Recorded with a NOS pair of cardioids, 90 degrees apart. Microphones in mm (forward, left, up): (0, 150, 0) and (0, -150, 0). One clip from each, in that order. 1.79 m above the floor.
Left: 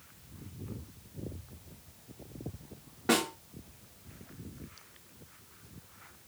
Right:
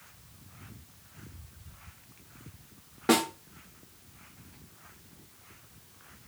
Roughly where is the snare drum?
Ahead.